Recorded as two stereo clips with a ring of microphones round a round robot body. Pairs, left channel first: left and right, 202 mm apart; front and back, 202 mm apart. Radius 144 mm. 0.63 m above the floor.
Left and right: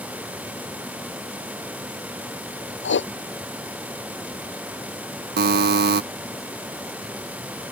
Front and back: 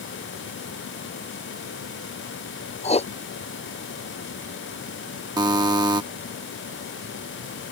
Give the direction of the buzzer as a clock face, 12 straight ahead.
4 o'clock.